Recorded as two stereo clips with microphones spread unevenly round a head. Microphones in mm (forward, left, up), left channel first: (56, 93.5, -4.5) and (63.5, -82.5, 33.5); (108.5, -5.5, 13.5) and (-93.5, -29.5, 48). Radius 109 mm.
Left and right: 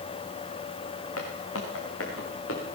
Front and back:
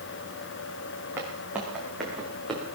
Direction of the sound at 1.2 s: 110° left.